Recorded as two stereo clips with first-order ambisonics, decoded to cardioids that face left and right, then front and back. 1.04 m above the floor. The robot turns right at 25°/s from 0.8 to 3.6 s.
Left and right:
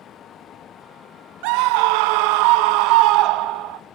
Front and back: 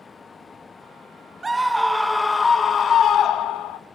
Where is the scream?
100° right, 0.5 m; by 3.8 s 50° right, 0.5 m.